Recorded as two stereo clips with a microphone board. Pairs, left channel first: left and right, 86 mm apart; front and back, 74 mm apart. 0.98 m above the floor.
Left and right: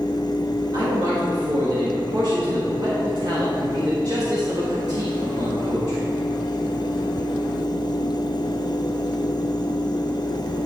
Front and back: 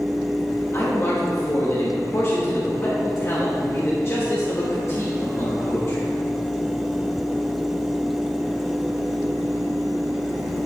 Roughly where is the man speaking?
Ahead right.